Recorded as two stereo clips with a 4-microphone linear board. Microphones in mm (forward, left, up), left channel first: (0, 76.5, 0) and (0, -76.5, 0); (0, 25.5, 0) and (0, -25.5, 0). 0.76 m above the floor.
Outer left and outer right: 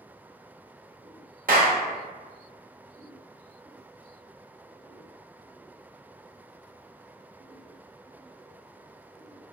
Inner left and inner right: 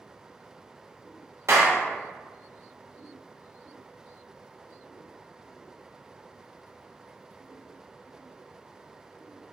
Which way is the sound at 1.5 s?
65° right (ahead or behind).